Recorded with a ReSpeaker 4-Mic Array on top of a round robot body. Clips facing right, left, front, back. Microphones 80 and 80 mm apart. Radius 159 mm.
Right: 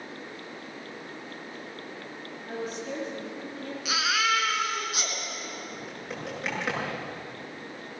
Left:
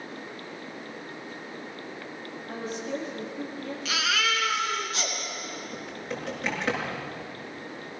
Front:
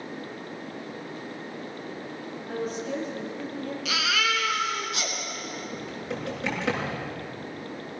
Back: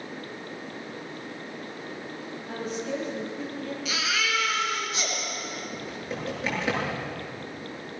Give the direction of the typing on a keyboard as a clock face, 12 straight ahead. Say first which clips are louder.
Left 2 dB, front 1 dB; 12 o'clock.